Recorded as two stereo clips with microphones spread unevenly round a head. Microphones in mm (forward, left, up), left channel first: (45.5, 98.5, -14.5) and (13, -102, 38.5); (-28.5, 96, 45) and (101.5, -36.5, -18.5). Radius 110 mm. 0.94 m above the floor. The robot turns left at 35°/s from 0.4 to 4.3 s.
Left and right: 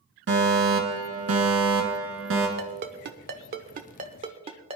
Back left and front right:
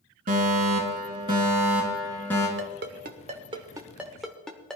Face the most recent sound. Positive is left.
turn(degrees=-150)